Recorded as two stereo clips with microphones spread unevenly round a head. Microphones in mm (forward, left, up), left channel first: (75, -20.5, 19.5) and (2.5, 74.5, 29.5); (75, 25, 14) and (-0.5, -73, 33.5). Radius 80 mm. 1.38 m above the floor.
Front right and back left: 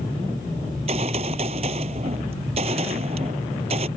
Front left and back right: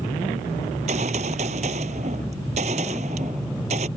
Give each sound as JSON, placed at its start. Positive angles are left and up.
{"t": 0.7, "sound": "a gunshot", "azimuth_deg": 180}